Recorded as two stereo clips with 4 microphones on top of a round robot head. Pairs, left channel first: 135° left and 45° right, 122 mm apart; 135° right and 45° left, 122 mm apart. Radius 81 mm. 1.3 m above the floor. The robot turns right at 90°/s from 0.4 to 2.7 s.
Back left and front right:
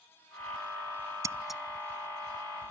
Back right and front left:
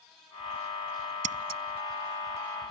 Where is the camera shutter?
No camera shutter in this recording.